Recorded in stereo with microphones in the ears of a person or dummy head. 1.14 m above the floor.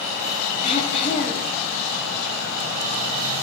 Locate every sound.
0.6 s throat clearing: 40° left (ahead or behind), 2.5 m